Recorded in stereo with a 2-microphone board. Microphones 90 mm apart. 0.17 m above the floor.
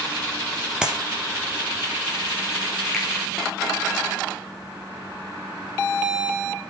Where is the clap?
10° right (ahead or behind), 4 m.